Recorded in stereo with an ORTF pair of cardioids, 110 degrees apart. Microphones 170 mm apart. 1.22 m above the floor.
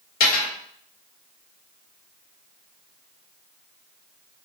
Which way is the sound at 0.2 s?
60° left.